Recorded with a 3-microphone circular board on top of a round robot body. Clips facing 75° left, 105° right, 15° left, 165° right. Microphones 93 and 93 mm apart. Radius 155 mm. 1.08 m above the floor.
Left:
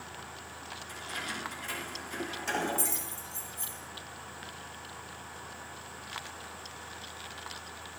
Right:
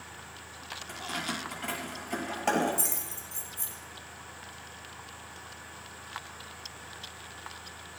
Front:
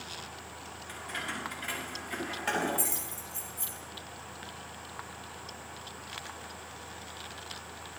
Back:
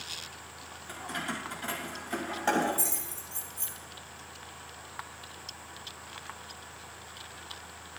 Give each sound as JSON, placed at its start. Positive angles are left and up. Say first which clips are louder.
{"t": 0.9, "sound": "keys jangling", "louder": "right 5 dB, back 3 dB", "azimuth_deg": -105, "distance_m": 6.0}